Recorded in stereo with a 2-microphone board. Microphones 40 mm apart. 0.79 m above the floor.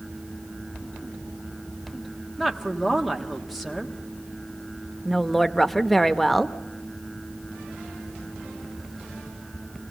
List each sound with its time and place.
2.4 s a woman speaking: 5° right (ahead or behind), 1.5 m
5.0 s a woman speaking: 5° left (ahead or behind), 0.7 m